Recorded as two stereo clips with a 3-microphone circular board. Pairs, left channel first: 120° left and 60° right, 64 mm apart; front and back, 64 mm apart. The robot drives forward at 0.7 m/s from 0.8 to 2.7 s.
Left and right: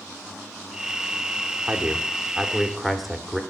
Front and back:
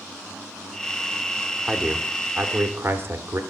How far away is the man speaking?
About 1.0 m.